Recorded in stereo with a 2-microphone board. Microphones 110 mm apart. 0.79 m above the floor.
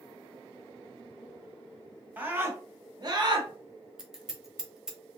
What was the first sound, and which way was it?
A scream, 15° right (ahead or behind).